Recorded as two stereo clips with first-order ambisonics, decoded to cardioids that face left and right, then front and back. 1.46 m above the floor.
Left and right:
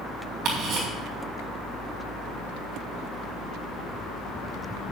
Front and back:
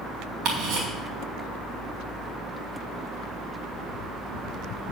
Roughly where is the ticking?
Behind right.